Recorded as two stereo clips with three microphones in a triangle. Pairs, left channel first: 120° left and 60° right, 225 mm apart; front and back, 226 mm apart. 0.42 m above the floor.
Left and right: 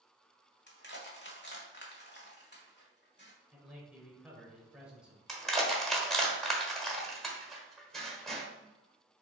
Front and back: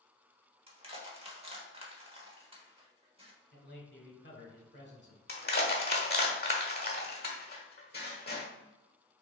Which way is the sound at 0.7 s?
125° left.